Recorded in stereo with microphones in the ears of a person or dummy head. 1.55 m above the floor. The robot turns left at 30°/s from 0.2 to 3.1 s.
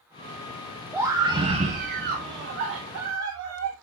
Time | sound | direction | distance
0.9 | a scream | 10° right | 2 m